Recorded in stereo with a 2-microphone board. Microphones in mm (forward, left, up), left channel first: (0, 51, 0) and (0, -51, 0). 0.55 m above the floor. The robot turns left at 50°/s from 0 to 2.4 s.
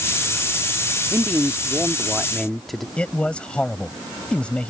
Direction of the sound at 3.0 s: 10° left (ahead or behind).